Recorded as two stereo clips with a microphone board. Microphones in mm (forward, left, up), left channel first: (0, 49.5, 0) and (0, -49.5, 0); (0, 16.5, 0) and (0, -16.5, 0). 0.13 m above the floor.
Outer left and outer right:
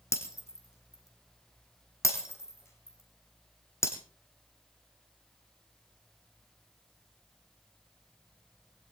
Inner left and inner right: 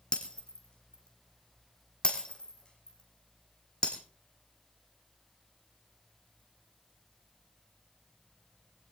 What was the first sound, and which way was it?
Breaking glass, 30° left (ahead or behind).